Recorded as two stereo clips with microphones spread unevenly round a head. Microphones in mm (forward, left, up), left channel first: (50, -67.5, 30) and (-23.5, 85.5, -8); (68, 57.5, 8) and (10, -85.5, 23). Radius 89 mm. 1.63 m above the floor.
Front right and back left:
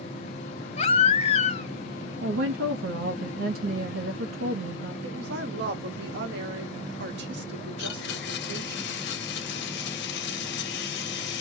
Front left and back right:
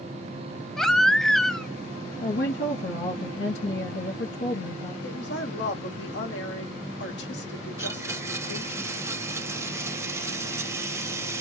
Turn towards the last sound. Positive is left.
turn(degrees=-40)